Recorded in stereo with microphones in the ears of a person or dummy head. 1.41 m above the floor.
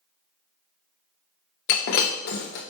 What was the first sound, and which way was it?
Breaking glass, 55° left (ahead or behind).